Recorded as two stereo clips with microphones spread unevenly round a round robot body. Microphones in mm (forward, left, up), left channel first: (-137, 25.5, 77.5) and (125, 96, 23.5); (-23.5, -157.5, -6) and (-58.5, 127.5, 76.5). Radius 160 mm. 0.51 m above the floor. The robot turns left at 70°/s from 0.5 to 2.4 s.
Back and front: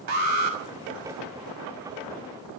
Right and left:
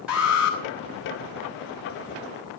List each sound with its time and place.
0.1 s an alarm: 5° left, 5.5 m; by 0.6 s straight ahead, 5.5 m